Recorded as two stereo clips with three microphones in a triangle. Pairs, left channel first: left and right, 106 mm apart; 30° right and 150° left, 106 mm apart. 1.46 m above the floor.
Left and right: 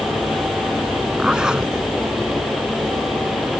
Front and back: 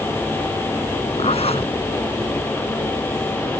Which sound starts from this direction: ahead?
A zipper, at 1.2 s.